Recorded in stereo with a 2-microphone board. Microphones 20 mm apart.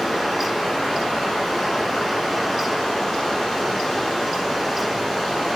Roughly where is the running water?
Left.